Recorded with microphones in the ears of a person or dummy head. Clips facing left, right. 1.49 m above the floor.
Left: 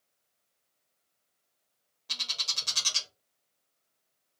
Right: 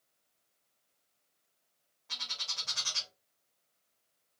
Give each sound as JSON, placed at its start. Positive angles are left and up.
{"t": 2.1, "sound": "a bird", "side_deg": 45, "distance_m": 0.6}